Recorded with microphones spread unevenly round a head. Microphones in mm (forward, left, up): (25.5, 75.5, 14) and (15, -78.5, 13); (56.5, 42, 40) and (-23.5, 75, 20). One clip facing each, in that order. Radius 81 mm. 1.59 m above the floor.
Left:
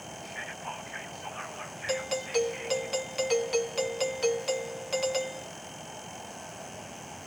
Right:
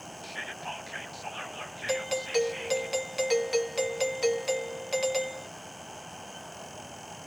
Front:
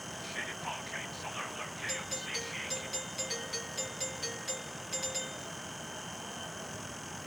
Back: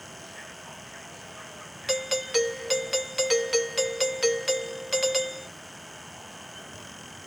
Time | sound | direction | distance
0.2 | whispering | 40° right | ?
1.9 | a doorbell | straight behind | ?